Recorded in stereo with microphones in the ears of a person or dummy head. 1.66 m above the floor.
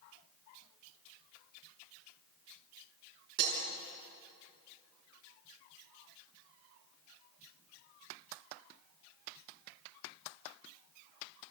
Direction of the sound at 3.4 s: 65° right (ahead or behind).